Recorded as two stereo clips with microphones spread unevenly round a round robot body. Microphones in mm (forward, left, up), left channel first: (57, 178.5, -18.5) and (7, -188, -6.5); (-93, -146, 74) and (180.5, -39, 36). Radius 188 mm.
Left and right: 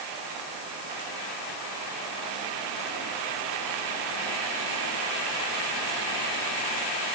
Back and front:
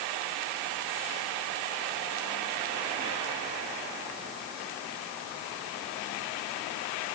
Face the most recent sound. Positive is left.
No sound to turn to.